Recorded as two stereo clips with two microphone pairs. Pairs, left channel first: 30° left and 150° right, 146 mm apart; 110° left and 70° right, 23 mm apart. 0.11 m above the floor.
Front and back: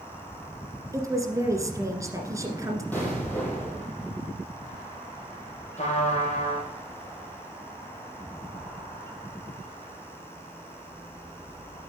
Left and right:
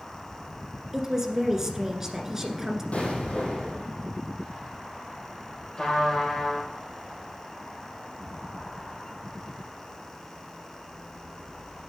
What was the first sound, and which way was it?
A woman speaking, 115° right.